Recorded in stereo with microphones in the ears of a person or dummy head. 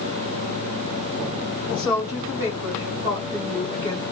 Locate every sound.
1.7 s a woman speaking: 5° right (ahead or behind), 3 m; by 4.0 s 30° right (ahead or behind), 2.5 m